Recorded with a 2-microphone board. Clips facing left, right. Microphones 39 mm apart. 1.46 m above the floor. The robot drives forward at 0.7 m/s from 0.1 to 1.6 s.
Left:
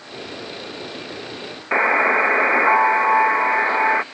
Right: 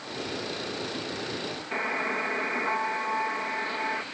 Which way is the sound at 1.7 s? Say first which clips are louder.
Left 13 dB; 55° left (ahead or behind).